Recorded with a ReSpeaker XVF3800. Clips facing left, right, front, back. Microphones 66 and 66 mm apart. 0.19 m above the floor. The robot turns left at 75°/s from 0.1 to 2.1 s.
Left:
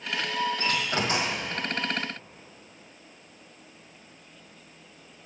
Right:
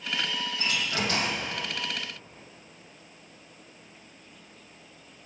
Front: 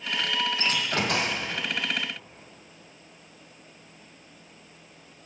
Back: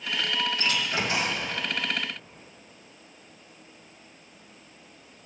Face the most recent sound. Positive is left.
turn(degrees=-50)